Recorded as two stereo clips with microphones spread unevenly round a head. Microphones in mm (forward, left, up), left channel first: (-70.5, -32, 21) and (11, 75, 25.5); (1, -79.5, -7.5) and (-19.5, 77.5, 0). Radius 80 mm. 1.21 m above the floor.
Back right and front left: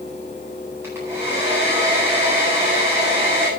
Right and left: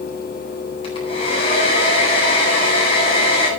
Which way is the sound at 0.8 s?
25° right.